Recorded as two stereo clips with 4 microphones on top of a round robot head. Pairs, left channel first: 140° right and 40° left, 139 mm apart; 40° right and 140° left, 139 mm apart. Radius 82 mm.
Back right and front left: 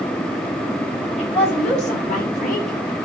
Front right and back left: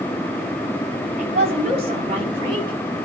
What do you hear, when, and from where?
1.2 s a woman speaking: 175° left, 4.5 m; by 2.8 s 165° right, 5 m